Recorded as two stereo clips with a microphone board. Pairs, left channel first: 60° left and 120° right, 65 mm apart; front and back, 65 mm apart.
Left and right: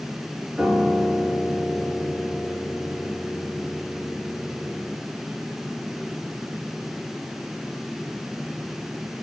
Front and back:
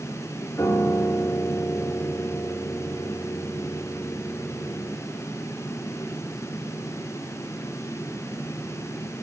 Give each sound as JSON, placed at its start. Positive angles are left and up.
{"t": 0.6, "sound": "a piano", "azimuth_deg": -45, "distance_m": 9.0}